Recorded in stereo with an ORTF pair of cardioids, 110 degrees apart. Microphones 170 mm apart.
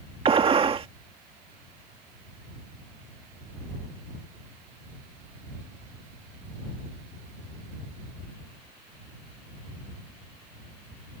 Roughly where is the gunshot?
Ahead right.